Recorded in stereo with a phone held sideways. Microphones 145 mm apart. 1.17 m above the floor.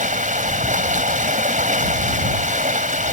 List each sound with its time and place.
0.0 s running water: 60° right (ahead or behind)